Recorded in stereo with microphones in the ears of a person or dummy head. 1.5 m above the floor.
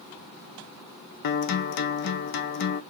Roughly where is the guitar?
Left.